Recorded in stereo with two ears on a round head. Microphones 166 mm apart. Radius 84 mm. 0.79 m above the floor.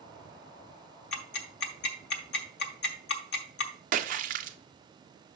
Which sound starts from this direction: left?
Ticking, at 1.1 s.